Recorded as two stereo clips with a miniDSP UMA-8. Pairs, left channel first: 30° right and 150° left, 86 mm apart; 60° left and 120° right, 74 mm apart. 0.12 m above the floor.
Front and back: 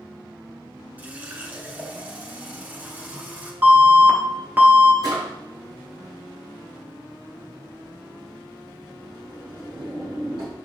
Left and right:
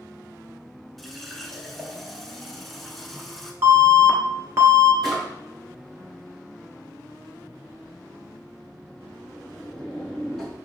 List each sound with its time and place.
1.0 s a running tap: 145° left, 0.8 m
3.6 s an alarm: 145° right, 1.0 m
5.0 s a drawer: 145° left, 2.5 m